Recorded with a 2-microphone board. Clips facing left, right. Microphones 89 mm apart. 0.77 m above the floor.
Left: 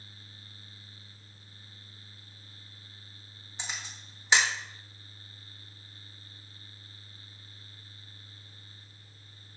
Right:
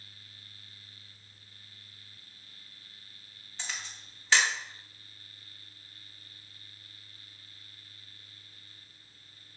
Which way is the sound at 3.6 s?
20° left (ahead or behind).